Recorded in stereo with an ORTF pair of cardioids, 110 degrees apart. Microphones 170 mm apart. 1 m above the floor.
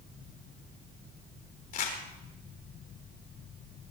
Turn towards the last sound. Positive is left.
turn(degrees=55)